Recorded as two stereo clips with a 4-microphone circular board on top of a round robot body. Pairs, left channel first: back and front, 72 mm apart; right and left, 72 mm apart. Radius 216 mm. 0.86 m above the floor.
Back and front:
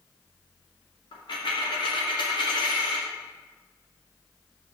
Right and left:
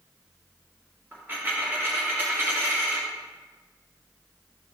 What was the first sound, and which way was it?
A dropped coin, 155° left.